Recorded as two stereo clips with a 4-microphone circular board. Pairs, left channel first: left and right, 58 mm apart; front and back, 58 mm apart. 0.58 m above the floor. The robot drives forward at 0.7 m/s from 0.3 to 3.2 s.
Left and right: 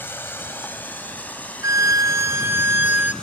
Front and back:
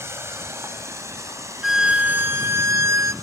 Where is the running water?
140° left, 2 m; by 3.2 s 160° left, 4 m.